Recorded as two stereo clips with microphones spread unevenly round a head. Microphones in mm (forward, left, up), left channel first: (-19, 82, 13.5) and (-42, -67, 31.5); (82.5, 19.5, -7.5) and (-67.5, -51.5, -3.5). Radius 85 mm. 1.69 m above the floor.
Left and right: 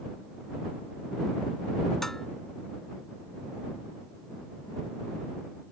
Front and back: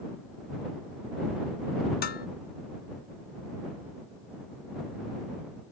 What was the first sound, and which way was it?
Dishes clattering, 10° right.